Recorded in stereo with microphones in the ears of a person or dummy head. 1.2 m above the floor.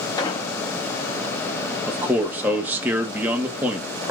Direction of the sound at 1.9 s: 15° right (ahead or behind).